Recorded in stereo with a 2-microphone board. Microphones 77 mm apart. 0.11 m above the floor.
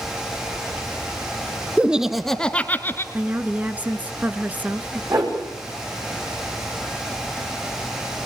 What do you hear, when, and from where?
1.8 s laughter: 15° right (ahead or behind), 1.4 m; by 3.0 s 30° left (ahead or behind), 1.5 m
3.1 s a woman speaking: 20° right (ahead or behind), 1.4 m
5.1 s a whoosh: 45° right (ahead or behind), 7 m